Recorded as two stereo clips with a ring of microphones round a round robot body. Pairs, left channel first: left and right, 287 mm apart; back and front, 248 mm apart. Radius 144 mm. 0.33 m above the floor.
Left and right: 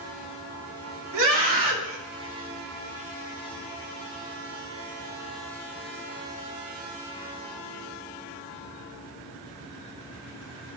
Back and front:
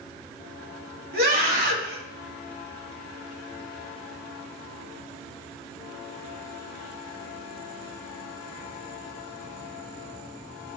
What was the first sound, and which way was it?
A scream, 50° right.